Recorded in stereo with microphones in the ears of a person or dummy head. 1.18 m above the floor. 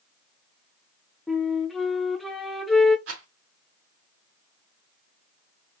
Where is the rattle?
70° right (ahead or behind), 3 m.